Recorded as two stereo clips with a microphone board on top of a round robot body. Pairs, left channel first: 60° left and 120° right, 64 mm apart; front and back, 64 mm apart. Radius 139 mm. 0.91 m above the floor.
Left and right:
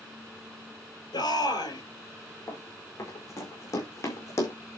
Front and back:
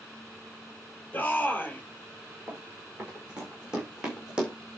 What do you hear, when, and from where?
1.1 s a shout: 70° left, 4 m
2.5 s running footsteps: 105° left, 6 m